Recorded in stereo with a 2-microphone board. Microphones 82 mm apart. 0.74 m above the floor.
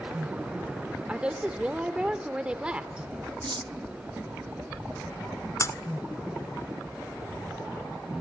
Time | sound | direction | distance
1.1 | a woman speaking | 15° right (ahead or behind) | 2.5 m
3.4 | cutlery clinking | 70° right (ahead or behind) | 0.7 m
5.6 | breaking glass | 40° left (ahead or behind) | 1.3 m